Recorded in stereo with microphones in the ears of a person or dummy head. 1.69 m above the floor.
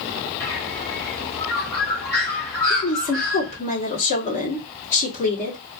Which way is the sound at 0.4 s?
15° left (ahead or behind).